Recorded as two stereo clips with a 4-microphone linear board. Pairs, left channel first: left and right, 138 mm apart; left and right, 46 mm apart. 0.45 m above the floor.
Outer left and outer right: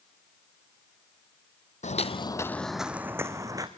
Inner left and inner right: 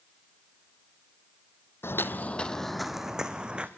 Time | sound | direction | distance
1.8 | footsteps | 60° left (ahead or behind) | 0.9 m